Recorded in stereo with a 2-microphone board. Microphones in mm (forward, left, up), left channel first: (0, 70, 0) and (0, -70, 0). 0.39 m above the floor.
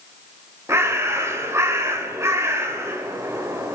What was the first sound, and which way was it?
A bird, 20° right (ahead or behind).